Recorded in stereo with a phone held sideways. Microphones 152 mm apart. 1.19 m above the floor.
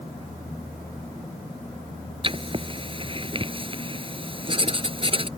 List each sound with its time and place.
2.2 s writing: 35° right (ahead or behind)